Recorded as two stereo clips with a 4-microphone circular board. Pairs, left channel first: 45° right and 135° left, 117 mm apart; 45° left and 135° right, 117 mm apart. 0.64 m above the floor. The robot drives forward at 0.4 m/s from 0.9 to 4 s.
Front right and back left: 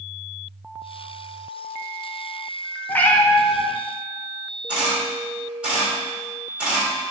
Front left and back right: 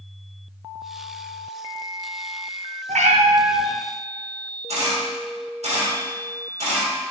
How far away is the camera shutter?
About 1.6 m.